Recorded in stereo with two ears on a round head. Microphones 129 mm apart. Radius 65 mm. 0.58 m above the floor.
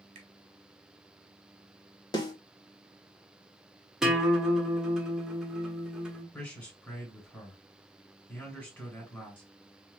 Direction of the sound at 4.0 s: 5° right (ahead or behind).